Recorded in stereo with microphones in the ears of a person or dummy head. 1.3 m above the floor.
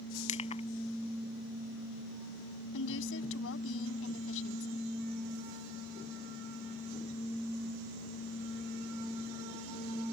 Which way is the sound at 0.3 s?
35° left (ahead or behind).